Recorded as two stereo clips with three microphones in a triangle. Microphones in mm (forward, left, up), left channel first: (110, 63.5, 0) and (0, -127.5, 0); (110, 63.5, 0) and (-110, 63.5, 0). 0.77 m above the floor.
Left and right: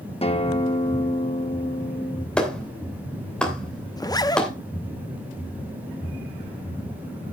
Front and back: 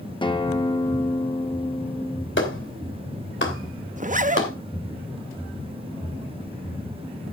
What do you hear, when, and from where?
0.2 s a guitar: 40° left, 1.1 m
2.4 s a clap: 25° right, 2.5 m
4.0 s a zipper: 130° left, 0.6 m